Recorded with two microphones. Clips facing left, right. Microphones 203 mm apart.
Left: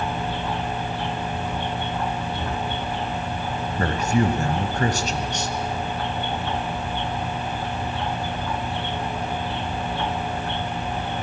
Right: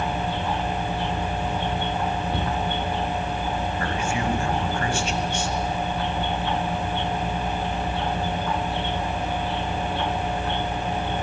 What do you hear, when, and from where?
2.3 s a cupboard door: 60° right (ahead or behind), 6 m
3.8 s a man speaking: 40° left (ahead or behind), 1.5 m